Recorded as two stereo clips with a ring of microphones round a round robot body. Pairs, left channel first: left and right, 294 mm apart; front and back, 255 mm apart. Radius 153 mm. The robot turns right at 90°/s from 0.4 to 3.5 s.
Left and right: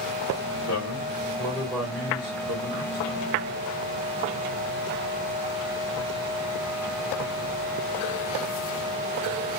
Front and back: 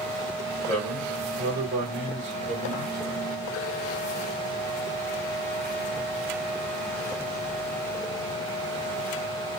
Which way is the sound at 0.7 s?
70° left.